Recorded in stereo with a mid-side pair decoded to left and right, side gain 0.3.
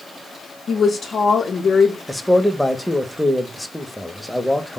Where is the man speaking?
5° left, 0.7 m.